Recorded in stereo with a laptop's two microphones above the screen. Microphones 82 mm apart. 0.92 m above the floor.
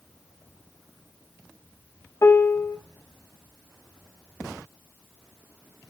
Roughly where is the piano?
Left.